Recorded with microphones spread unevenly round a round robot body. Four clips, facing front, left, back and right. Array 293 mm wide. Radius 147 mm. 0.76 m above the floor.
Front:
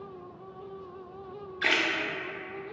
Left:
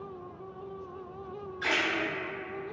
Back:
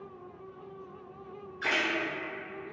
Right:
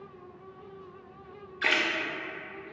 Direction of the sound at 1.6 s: 45° right.